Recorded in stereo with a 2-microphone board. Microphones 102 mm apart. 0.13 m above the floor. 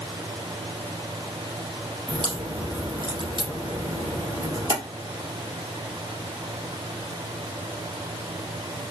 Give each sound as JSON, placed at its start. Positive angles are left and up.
{"t": 2.1, "sound": "a crack", "side_deg": -50, "distance_m": 2.0}